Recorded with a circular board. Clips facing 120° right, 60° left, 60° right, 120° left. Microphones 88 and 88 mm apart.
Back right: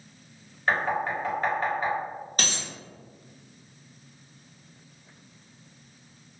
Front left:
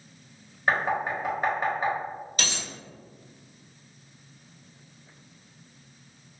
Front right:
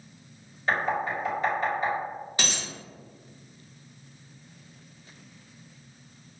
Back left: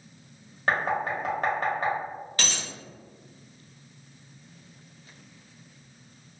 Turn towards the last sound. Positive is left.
turn(degrees=-120)